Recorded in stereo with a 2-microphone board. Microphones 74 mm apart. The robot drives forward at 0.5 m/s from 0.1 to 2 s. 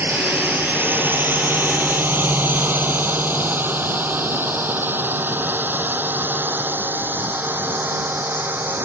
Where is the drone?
30° right (ahead or behind).